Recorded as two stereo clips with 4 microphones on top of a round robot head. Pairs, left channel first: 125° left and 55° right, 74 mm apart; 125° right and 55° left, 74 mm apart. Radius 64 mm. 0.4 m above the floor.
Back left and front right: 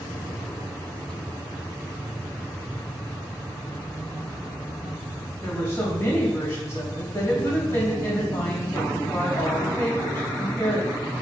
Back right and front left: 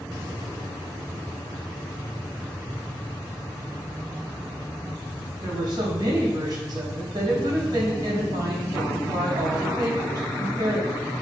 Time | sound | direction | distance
5.4 | a woman speaking | 65° left | 3 m